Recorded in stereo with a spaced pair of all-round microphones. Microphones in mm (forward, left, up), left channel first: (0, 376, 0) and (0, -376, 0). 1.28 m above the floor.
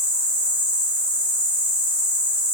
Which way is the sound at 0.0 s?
55° left (ahead or behind).